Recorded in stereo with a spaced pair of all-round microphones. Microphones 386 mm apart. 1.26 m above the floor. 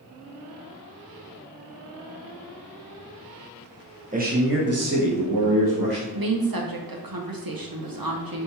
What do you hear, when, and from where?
4.1 s a man speaking: 20° right (ahead or behind), 0.9 m; by 6.0 s 70° right (ahead or behind), 0.8 m
6.1 s a woman speaking: 60° right (ahead or behind), 0.7 m